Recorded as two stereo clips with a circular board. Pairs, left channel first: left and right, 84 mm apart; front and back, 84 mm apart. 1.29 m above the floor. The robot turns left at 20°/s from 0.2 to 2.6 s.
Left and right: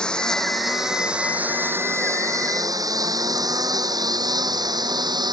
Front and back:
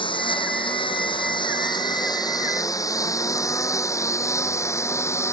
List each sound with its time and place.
0.0 s a lawn mower: 10° left; by 5.3 s 55° right